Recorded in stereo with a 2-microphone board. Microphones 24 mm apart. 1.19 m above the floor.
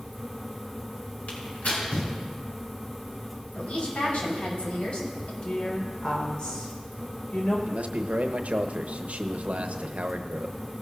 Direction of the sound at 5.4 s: 40° left (ahead or behind).